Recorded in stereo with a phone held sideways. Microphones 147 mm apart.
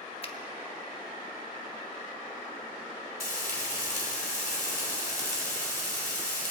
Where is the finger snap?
40° left (ahead or behind), 0.8 m.